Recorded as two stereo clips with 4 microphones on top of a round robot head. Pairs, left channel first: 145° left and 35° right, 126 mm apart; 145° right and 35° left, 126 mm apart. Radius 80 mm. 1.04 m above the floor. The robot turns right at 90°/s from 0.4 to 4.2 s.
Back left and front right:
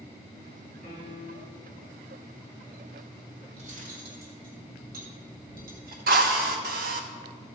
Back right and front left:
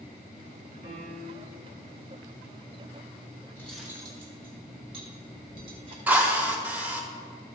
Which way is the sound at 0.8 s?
5° right.